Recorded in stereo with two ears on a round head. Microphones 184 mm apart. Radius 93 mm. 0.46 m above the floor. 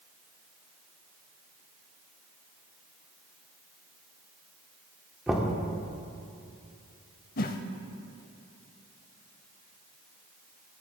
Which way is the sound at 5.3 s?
5° right (ahead or behind).